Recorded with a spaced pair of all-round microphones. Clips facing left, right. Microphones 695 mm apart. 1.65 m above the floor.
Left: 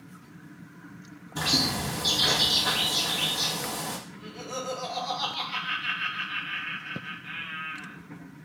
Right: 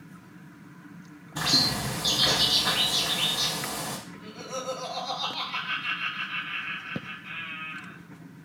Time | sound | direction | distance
1.4 | a bird | centre (ahead or behind) | 0.8 m
4.1 | laughter | 45° left (ahead or behind) | 0.9 m